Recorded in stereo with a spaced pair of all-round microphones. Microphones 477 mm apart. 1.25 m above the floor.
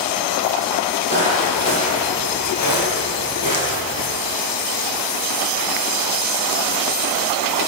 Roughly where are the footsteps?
Left.